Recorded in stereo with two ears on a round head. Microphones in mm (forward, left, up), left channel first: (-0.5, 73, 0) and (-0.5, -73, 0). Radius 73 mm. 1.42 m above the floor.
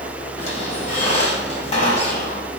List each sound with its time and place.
0.4 s a squeak: 40° left (ahead or behind), 2.5 m